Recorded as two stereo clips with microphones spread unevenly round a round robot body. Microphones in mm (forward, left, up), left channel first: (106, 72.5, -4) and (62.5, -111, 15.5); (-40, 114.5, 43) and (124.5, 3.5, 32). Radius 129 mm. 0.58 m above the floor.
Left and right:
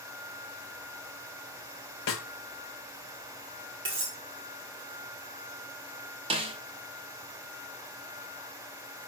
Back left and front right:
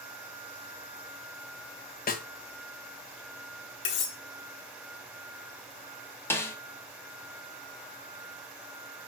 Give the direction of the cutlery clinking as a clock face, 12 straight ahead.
6 o'clock.